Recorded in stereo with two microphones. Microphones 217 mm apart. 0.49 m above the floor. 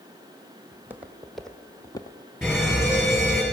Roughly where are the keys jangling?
I don't hear keys jangling.